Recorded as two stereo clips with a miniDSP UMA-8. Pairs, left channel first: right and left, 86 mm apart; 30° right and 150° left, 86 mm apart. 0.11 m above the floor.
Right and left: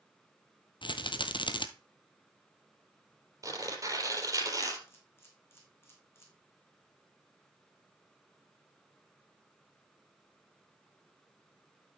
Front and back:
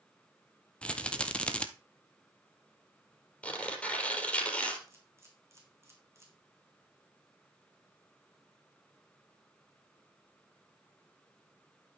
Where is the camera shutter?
150° right, 3 m.